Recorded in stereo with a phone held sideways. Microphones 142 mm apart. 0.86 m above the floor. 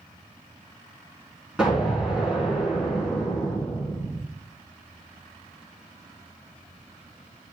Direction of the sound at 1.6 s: 5° right (ahead or behind).